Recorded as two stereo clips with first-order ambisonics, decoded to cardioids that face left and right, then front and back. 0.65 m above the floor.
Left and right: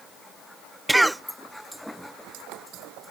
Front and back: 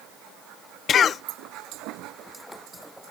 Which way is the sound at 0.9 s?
10° right.